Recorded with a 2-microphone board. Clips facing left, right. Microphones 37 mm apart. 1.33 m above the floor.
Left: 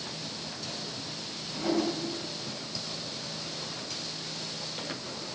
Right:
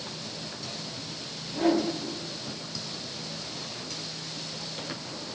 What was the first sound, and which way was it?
A whoosh, 75° right (ahead or behind).